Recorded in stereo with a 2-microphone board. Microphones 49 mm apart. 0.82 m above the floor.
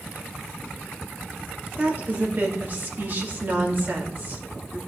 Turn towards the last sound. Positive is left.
turn(degrees=-40)  # may be behind; listen again after turning